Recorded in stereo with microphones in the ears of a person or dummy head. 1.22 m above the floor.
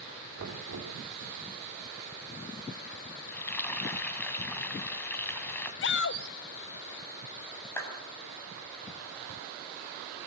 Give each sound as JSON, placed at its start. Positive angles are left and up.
{"t": 0.4, "sound": "knocking", "side_deg": -65, "distance_m": 2.5}
{"t": 3.3, "sound": "frying", "side_deg": 15, "distance_m": 2.0}
{"t": 5.8, "sound": "a shout", "side_deg": 55, "distance_m": 0.7}
{"t": 7.8, "sound": "a clap", "side_deg": 15, "distance_m": 6.5}